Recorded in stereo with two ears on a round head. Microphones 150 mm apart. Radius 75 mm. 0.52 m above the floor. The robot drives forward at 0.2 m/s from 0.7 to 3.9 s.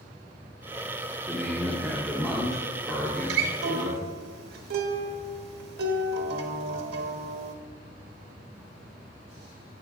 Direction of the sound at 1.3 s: Centre (ahead or behind).